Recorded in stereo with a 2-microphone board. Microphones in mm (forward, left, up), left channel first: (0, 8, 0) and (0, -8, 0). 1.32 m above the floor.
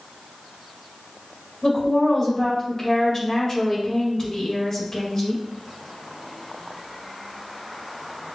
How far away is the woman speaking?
About 1.9 m.